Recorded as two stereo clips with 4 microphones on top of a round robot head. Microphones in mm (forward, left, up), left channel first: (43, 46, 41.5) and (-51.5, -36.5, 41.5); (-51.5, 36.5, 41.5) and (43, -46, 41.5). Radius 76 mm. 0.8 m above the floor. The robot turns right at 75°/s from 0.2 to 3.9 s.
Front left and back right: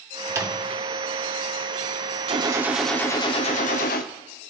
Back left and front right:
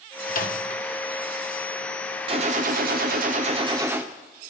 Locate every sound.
0.3 s a microwave: 145° left, 1.7 m; by 0.8 s 175° right, 1.7 m
2.3 s a gunshot: 90° right, 1.1 m; by 4.1 s 30° left, 1.1 m